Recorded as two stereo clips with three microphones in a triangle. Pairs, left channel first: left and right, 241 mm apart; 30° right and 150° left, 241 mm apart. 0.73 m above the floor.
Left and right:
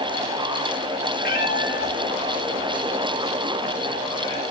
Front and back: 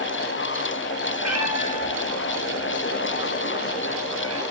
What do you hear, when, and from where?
1.2 s a cat meowing: 145° left, 5.5 m; by 4.4 s 165° left, 6 m